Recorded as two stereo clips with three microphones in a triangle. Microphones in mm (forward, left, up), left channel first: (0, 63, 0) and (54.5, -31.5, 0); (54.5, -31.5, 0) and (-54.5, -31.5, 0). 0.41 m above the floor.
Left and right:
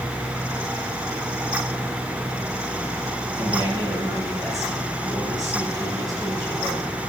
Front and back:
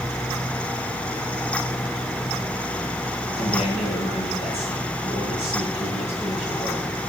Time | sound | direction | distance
3.4 | a man speaking | 5° right | 9.5 m